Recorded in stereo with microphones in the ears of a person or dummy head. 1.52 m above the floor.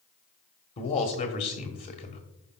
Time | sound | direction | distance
0.8 | a man speaking | 35° left (ahead or behind) | 1.4 m